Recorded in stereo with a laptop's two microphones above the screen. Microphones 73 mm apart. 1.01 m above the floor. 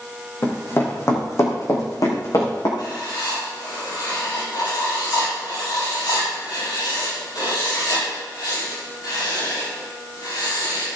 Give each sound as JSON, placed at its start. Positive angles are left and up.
{"t": 0.4, "sound": "running footsteps", "side_deg": 35, "distance_m": 3.5}
{"t": 2.8, "sound": "writing", "side_deg": 75, "distance_m": 5.5}